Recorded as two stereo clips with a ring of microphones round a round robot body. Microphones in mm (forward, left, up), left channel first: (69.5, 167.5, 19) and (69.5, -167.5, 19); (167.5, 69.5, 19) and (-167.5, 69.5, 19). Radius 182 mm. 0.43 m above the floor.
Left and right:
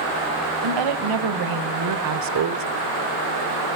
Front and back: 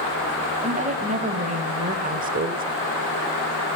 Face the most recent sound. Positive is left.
turn(degrees=-125)